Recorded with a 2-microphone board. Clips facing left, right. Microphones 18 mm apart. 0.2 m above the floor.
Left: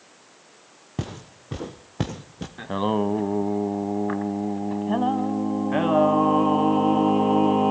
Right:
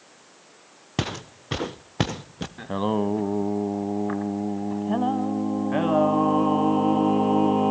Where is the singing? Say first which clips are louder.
Left 1 dB; 15° left (ahead or behind), 0.5 m.